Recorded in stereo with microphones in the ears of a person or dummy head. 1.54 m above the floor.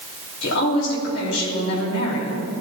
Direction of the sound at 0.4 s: 75° left (ahead or behind).